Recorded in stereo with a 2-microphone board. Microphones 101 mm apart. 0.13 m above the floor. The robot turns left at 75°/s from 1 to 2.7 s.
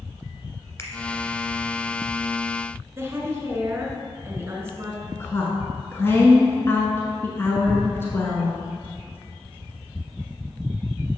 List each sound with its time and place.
0.8 s a finger snap: 25° left (ahead or behind), 1.2 m
3.0 s a woman speaking: 25° right (ahead or behind), 1.2 m
5.1 s a woman speaking: 25° left (ahead or behind), 1.1 m
7.7 s tearing paper: 15° left (ahead or behind), 1.4 m